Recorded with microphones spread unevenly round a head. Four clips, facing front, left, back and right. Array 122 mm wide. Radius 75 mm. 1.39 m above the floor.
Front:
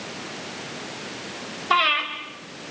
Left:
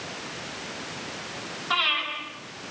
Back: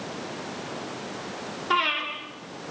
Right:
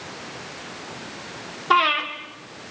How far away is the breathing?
About 4 m.